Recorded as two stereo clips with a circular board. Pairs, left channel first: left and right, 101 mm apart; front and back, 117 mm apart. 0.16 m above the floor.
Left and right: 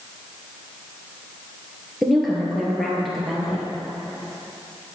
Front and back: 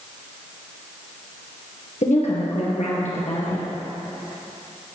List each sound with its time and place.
2.0 s a woman speaking: straight ahead, 3 m